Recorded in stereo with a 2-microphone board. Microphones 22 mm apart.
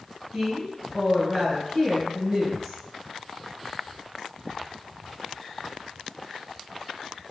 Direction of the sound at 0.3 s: 20° left (ahead or behind).